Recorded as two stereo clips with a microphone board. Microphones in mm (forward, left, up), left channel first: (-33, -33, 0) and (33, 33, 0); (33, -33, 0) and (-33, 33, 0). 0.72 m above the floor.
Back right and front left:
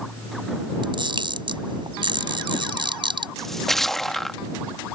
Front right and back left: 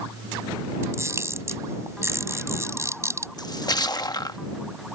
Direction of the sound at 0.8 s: 75° left.